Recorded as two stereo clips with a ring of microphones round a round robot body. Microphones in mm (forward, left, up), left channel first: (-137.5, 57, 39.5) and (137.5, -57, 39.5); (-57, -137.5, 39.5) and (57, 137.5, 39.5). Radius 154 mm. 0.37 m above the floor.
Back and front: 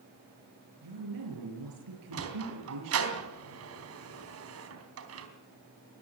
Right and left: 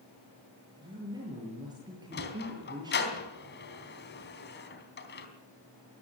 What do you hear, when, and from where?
0.8 s a woman speaking: 10° right, 6.5 m
2.1 s a sliding door: 60° right, 3.5 m